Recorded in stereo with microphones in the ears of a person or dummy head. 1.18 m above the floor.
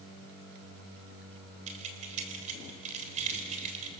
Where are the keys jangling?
40° right (ahead or behind), 3.5 m.